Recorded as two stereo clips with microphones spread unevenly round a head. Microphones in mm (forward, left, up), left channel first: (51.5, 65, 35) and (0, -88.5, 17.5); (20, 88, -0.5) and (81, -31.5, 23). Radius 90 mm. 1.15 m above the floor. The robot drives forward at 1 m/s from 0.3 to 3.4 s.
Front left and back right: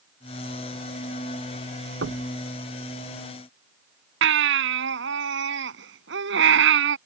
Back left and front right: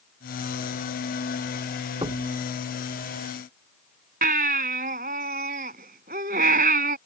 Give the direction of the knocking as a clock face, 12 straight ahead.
4 o'clock.